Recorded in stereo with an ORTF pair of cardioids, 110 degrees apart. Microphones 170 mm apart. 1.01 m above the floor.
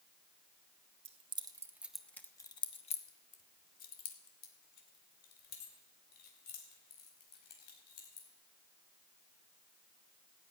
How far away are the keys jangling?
About 1.4 m.